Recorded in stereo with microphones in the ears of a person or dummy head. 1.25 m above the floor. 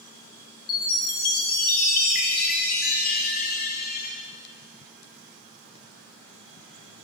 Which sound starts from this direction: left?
A chime, at 0.7 s.